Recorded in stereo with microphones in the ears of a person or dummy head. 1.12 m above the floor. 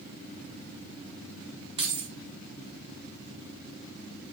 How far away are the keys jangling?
About 1.7 m.